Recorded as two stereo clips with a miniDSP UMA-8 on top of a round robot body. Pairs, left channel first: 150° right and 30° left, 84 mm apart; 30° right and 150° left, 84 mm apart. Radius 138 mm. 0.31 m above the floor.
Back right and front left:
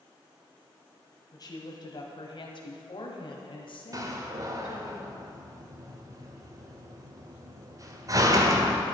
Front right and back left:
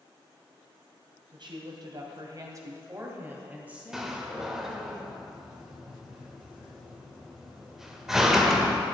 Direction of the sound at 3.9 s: 65° left.